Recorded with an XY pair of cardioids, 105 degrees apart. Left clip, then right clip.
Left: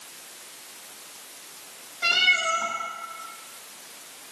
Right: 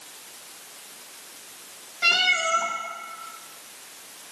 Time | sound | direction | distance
2.0 | a cat meowing | 30° right | 2 m